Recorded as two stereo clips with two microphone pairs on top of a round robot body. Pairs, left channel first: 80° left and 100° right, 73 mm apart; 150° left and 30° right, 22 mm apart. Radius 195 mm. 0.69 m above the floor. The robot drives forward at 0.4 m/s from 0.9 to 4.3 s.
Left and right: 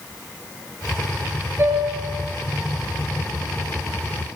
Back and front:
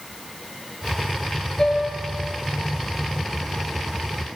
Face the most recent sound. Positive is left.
turn(degrees=-160)